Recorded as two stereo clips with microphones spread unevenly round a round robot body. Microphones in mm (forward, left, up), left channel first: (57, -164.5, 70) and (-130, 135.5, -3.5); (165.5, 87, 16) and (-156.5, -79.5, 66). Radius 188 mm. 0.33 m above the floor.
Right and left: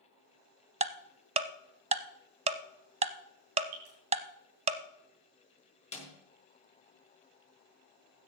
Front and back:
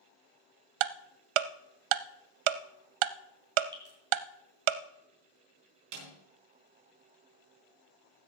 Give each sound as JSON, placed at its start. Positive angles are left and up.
{"t": 0.8, "sound": "ticking", "azimuth_deg": -165, "distance_m": 0.7}
{"t": 3.7, "sound": "dripping", "azimuth_deg": 130, "distance_m": 5.0}
{"t": 5.9, "sound": "a snare drum", "azimuth_deg": -135, "distance_m": 4.5}